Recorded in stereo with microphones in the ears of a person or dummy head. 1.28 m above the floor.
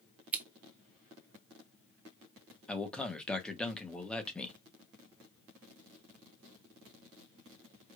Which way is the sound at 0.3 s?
10° right (ahead or behind).